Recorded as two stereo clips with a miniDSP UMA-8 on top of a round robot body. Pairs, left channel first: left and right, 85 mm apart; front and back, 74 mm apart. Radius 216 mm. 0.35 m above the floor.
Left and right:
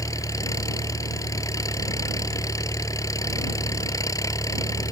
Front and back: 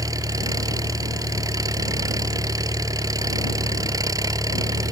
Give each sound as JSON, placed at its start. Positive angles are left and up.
{"t": 0.0, "sound": "an engine running", "azimuth_deg": 140}